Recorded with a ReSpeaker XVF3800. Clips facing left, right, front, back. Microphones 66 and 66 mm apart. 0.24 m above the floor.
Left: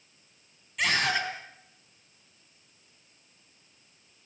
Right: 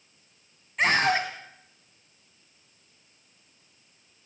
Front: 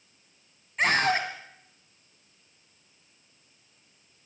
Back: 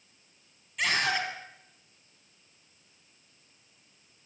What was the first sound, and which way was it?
A scream, 45° right.